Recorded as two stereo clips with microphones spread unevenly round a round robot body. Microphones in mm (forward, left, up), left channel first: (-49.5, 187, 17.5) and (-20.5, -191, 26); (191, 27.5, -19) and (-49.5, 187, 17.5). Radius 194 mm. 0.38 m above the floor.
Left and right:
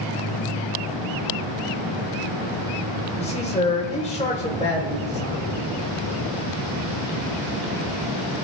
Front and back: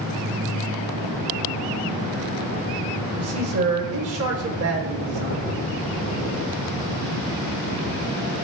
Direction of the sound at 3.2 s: 160° left.